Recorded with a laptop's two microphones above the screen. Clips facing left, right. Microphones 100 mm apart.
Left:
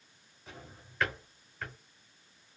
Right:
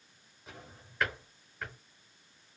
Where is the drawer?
10° right (ahead or behind), 1.2 m.